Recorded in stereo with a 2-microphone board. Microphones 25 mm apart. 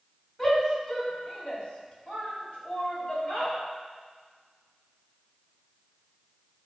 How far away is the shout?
About 3 m.